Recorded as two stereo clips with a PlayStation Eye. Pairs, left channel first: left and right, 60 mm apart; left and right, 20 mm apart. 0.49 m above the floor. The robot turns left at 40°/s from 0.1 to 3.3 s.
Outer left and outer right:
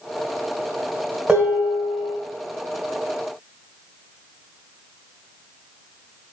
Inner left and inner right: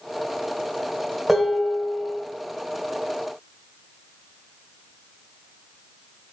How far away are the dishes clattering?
About 1.2 m.